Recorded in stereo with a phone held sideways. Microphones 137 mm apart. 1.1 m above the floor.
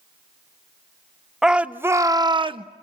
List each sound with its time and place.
1.4 s a shout: 5° right (ahead or behind), 0.8 m; by 2.6 s 40° right (ahead or behind), 0.8 m